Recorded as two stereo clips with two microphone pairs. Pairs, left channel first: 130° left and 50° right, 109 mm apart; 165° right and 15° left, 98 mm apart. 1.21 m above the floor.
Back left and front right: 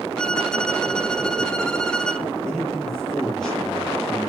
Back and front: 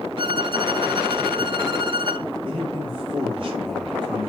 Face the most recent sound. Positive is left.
turn(degrees=40)